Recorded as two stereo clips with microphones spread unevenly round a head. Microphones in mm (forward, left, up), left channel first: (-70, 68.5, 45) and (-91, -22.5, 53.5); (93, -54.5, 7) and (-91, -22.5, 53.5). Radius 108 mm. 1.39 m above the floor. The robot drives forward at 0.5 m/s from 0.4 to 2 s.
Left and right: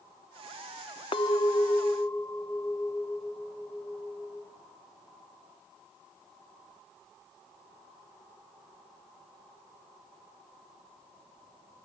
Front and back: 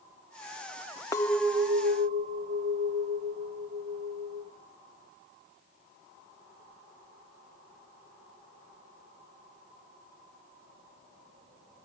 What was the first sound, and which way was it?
A clink, 75° left.